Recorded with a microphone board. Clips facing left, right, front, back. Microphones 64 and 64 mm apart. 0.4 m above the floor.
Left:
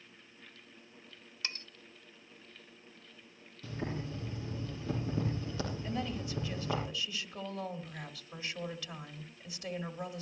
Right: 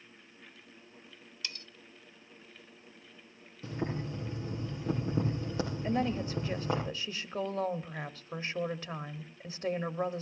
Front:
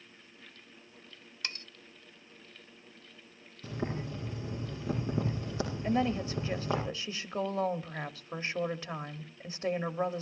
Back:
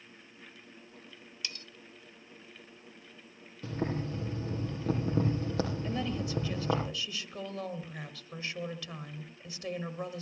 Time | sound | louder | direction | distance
1.4 | cutlery clinking | left 2 dB, front 3 dB | 45° left | 0.8 m
3.6 | boiling | right 3 dB, back 2 dB | 150° right | 7.5 m
5.8 | a woman speaking | right 6 dB, front 4 dB | 50° right | 1.4 m